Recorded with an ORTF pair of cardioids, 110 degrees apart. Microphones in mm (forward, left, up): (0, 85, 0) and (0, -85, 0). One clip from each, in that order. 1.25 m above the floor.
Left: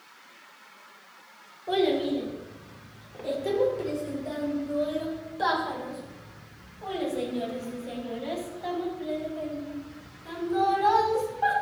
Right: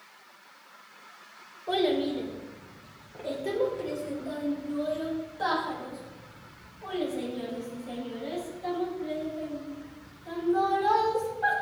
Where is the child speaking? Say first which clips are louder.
Left 2 dB; 5° right, 2.5 m; by 11.5 s 40° left, 7.5 m.